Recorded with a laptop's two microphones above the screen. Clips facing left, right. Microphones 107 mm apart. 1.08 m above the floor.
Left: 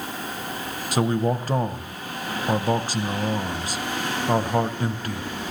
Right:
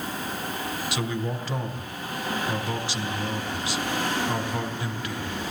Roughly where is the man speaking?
Left.